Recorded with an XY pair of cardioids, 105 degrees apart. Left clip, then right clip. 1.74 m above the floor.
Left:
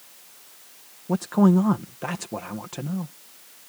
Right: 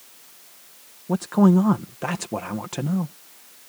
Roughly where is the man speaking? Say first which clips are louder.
Right 1 dB; ahead.